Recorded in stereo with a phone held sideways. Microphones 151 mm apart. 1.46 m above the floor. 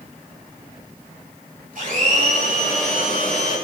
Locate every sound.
1.8 s a blender: 60° right (ahead or behind), 7 m